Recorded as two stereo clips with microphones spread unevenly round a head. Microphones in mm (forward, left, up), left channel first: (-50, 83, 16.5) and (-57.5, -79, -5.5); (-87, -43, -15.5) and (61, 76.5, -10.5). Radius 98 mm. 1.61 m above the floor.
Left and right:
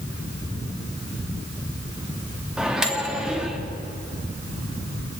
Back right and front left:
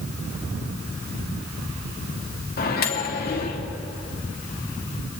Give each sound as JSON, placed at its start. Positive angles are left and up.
{"t": 2.6, "sound": "a microwave", "azimuth_deg": 180, "distance_m": 2.5}